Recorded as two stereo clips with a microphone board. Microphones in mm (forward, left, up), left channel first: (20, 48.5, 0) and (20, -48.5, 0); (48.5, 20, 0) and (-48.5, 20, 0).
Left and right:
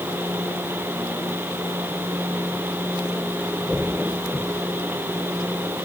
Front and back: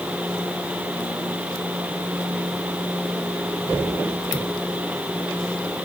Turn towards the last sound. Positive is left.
No sound to turn to.